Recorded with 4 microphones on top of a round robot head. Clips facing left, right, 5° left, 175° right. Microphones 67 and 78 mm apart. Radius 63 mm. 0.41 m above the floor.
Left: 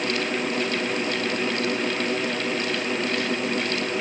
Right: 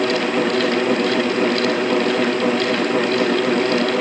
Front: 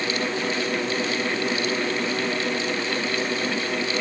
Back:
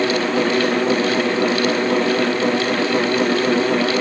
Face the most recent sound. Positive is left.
No sound to turn to.